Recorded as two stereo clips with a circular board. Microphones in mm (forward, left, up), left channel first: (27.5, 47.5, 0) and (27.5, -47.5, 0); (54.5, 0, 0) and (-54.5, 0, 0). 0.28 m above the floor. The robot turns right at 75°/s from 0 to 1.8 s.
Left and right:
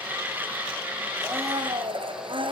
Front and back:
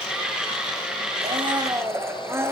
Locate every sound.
1.2 s a blender: 160° right, 3 m; by 2.5 s 115° right, 3 m